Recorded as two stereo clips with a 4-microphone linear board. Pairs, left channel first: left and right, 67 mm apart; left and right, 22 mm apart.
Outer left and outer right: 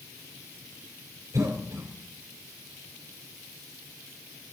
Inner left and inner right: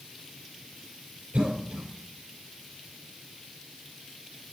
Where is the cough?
55° right (ahead or behind), 4 m.